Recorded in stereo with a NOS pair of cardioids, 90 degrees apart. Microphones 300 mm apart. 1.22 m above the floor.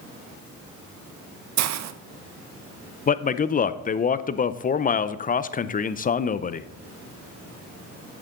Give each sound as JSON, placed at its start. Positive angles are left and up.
{"t": 1.6, "sound": "a hiss", "azimuth_deg": -60, "distance_m": 0.7}
{"t": 3.1, "sound": "a man speaking", "azimuth_deg": 25, "distance_m": 0.5}